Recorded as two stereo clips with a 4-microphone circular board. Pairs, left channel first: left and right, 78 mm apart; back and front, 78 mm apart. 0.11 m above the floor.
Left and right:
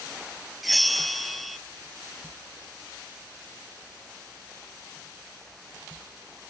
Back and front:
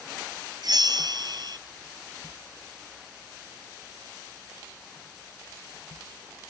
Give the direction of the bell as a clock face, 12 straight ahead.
12 o'clock.